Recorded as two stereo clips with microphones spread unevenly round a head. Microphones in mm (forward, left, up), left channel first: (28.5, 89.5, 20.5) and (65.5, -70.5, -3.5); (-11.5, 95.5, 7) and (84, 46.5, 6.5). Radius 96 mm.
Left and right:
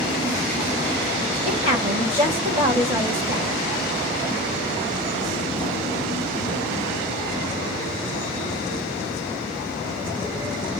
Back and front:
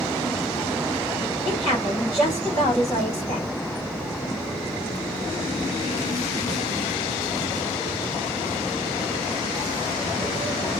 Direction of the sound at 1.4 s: 135° right.